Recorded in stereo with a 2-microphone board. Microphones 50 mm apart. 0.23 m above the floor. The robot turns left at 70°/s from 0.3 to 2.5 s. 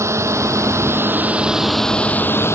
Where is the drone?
70° right (ahead or behind); by 2.5 s 60° left (ahead or behind).